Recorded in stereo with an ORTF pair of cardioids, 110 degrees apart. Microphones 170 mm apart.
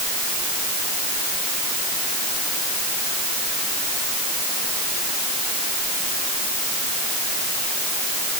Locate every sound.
Only background noise.